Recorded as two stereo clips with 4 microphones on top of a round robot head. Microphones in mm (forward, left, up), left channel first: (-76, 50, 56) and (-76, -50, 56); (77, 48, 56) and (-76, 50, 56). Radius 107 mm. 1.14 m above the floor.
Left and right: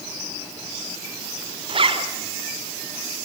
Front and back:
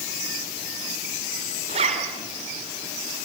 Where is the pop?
No pop in this recording.